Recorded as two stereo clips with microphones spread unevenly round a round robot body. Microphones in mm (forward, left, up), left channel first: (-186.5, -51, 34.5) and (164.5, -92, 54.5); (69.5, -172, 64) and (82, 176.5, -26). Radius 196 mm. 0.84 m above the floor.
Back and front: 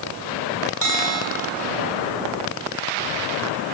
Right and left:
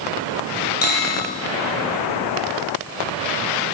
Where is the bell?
45° right, 3 m.